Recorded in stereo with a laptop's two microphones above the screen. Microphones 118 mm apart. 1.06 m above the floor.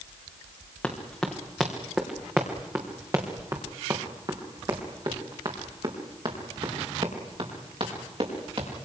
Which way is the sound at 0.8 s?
5° left (ahead or behind).